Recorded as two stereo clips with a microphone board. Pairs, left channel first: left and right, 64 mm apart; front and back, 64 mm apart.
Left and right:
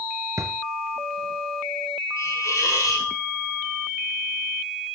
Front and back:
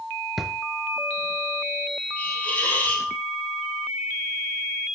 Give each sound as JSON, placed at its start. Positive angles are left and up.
{"t": 0.4, "sound": "a drawer", "azimuth_deg": -95, "distance_m": 0.8}
{"t": 2.2, "sound": "a hiss", "azimuth_deg": 60, "distance_m": 3.5}